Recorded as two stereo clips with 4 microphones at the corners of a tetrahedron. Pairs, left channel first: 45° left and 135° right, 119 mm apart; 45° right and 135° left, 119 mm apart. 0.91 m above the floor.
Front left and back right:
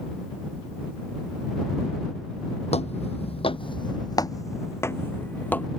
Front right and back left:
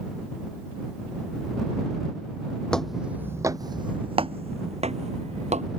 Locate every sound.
2.7 s footsteps: 35° left; by 5.7 s 120° left